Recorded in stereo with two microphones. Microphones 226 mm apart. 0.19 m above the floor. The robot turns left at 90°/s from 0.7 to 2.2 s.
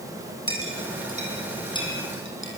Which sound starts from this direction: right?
A clink, at 0.5 s.